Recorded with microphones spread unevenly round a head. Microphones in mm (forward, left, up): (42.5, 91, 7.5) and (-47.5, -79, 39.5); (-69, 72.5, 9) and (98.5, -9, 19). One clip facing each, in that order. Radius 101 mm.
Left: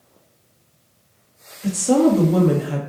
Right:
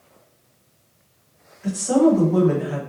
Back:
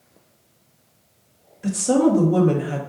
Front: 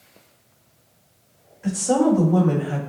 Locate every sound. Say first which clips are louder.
1.6 s a woman speaking: left 1 dB, back 1 dB; 105° left, 1.5 m